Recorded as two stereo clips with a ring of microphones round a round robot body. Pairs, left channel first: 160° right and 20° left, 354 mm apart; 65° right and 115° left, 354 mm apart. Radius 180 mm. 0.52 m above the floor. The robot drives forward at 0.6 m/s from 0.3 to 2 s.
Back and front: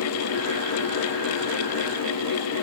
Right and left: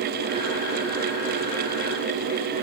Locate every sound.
Only background noise.